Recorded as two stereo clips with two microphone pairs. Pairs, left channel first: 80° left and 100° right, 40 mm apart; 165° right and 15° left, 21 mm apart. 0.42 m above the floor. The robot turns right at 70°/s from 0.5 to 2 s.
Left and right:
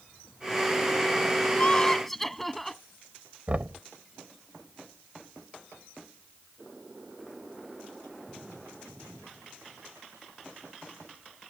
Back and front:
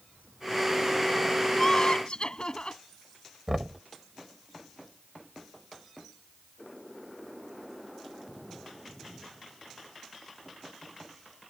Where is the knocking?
50° right.